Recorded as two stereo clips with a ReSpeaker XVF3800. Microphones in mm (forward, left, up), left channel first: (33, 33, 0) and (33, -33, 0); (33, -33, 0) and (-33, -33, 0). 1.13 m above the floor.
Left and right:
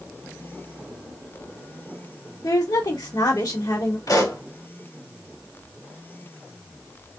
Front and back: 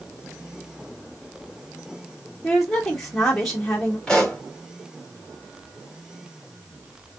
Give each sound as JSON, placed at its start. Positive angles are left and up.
{"t": 2.4, "sound": "a woman speaking", "azimuth_deg": 90, "distance_m": 1.7}
{"t": 4.1, "sound": "a pop", "azimuth_deg": 85, "distance_m": 1.8}